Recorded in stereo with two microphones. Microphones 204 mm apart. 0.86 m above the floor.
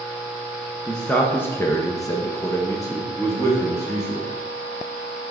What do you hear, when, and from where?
0.9 s a man speaking: 5° left (ahead or behind), 0.8 m; by 4.3 s 15° left (ahead or behind), 2 m